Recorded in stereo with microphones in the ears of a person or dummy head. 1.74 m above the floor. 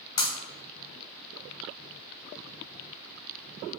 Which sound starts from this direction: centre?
Breaking glass, at 0.2 s.